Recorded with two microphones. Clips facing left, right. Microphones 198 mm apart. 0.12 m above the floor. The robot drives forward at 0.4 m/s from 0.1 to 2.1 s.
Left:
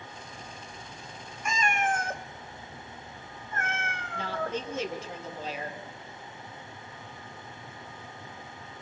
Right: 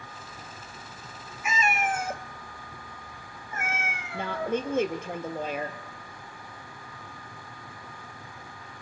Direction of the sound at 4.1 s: 55° right (ahead or behind).